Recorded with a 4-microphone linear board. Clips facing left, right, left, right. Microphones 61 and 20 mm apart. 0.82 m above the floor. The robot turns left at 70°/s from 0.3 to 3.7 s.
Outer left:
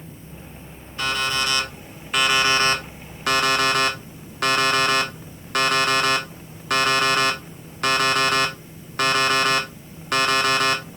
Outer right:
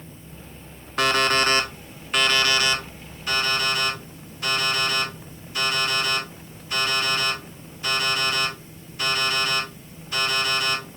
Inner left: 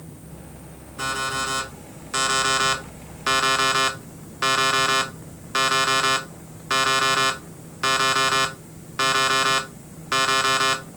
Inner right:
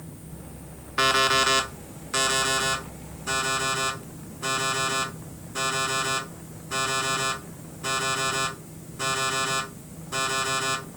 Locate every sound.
1.0 s an alarm clock: 100° right, 0.9 m; by 10.8 s 70° left, 0.9 m